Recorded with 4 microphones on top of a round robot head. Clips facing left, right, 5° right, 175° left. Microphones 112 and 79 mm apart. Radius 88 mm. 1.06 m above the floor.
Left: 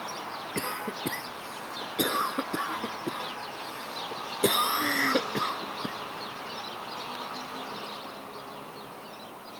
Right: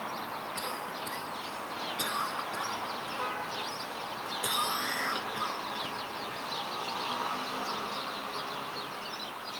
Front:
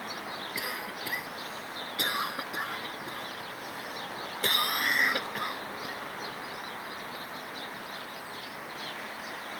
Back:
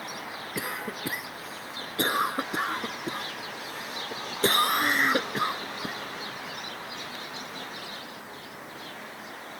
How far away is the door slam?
No door slam in this recording.